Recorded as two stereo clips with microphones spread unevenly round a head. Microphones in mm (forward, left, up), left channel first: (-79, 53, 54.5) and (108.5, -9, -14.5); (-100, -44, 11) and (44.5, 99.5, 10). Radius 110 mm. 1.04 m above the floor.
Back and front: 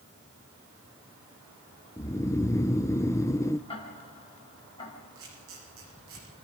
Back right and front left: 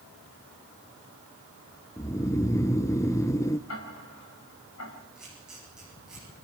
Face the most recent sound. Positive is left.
turn(degrees=-45)